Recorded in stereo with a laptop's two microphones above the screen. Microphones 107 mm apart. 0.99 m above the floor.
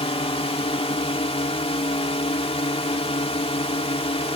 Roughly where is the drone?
Left.